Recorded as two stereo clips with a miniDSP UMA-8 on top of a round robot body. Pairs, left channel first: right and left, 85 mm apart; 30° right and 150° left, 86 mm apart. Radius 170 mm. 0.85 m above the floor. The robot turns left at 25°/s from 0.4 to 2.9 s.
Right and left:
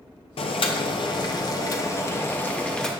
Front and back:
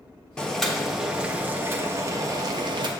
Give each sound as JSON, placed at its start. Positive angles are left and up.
{"t": 0.4, "sound": "boiling", "azimuth_deg": -110, "distance_m": 0.5}